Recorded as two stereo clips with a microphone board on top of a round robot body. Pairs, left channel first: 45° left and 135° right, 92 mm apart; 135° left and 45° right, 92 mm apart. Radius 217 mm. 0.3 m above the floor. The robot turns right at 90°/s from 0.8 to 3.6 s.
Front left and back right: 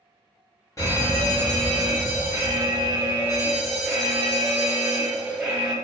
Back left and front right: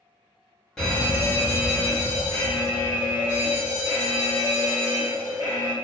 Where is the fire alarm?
55° left, 2.0 m; by 5.7 s 55° right, 2.0 m.